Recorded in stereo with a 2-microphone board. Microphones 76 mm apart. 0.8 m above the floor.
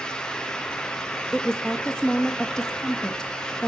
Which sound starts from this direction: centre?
A woman speaking, at 1.3 s.